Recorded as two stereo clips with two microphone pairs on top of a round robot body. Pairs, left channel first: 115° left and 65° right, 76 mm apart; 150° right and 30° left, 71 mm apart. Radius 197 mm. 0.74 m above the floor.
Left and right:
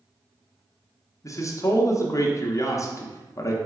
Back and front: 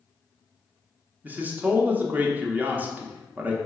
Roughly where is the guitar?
I don't hear a guitar.